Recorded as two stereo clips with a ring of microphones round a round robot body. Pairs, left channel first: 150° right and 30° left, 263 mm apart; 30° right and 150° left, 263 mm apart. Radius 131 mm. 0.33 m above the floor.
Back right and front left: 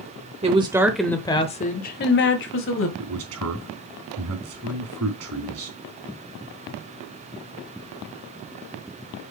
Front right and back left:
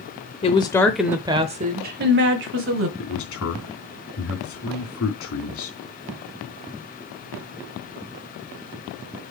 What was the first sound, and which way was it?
A woman speaking, straight ahead.